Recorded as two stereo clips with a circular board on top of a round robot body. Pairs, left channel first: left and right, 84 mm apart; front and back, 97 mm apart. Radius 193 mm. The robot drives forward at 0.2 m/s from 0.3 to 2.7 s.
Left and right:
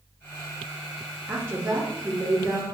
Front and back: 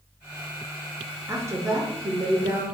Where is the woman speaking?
135° right, 0.7 m; by 2.6 s 155° right, 0.9 m.